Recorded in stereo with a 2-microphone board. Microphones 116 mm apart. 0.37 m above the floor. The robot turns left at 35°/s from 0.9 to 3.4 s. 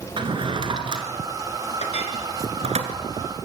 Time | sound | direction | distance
0.2 | a drawer | 45° right (ahead or behind) | 2 m
1.8 | a clink | 80° left | 3 m